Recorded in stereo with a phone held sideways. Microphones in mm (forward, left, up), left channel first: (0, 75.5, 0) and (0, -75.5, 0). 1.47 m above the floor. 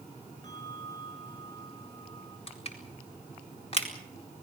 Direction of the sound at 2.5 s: 40° left (ahead or behind).